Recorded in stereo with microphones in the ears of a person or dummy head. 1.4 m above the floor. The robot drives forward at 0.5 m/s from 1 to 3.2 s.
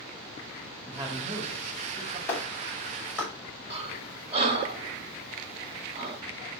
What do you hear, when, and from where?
0.9 s a man speaking: 25° right (ahead or behind), 3 m; by 2.2 s 20° right (ahead or behind), 3.5 m
2.3 s a clap: 10° left (ahead or behind), 5.5 m
3.7 s breathing: 30° right (ahead or behind), 0.7 m